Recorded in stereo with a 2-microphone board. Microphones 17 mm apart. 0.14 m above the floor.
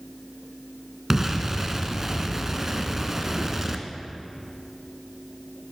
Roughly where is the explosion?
Right.